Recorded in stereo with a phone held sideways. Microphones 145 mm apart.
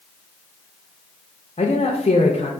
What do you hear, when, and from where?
1.6 s a man speaking: 45° left (ahead or behind), 0.5 m